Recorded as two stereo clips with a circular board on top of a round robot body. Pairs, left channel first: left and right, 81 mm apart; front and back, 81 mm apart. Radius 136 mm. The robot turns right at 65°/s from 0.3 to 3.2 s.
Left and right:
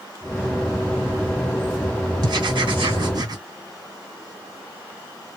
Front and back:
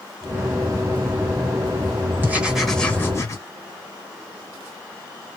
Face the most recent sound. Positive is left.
turn(degrees=-55)